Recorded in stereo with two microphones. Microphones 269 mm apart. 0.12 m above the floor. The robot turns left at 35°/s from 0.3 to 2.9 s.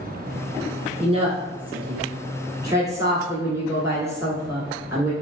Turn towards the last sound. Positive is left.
turn(degrees=-10)  # may be behind; listen again after turning